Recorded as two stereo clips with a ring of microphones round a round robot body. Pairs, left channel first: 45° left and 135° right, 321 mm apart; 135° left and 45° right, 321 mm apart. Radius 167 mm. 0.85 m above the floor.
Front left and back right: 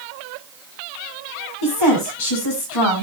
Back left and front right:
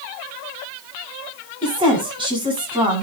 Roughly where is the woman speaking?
Ahead left.